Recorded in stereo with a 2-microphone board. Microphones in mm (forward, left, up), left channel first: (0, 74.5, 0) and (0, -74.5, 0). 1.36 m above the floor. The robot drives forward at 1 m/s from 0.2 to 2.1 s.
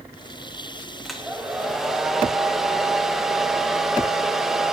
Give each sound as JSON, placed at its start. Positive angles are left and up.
{"t": 1.1, "sound": "a hair dryer", "side_deg": 0, "distance_m": 1.1}